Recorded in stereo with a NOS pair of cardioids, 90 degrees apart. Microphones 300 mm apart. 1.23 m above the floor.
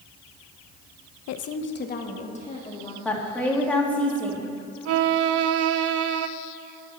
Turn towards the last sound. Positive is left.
turn(degrees=-55)